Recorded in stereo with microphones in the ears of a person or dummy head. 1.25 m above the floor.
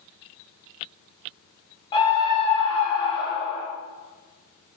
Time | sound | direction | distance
1.9 | a scream | 25° left (ahead or behind) | 1.5 m